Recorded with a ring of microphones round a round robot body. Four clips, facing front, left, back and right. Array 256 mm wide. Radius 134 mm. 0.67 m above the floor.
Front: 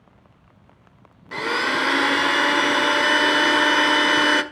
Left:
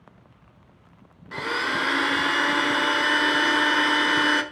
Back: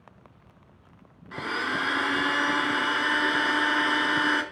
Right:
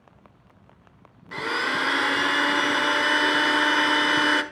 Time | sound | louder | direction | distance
1.3 | a blender | even, front 7 dB | straight ahead | 1.4 m